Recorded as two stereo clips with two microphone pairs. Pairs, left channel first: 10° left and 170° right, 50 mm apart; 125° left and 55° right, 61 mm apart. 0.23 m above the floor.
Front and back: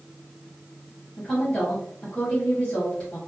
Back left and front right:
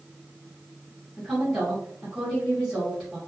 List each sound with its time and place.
1.2 s a woman speaking: 40° left, 1.5 m